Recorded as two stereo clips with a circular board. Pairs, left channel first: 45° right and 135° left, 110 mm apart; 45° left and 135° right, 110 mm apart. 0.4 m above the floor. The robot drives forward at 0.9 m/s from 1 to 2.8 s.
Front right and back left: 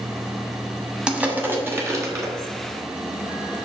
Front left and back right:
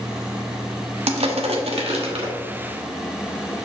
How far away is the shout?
No shout in this recording.